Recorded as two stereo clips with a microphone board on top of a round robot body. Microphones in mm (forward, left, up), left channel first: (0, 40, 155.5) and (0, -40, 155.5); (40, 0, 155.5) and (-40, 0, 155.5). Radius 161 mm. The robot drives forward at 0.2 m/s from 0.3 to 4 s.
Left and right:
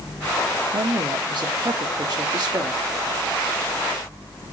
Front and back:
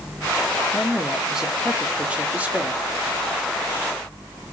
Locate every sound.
0.7 s a woman speaking: 90° right, 1.0 m; by 2.8 s 115° right, 1.1 m